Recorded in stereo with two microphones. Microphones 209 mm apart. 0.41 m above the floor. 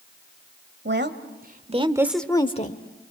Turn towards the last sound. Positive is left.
turn(degrees=45)  # may be behind; listen again after turning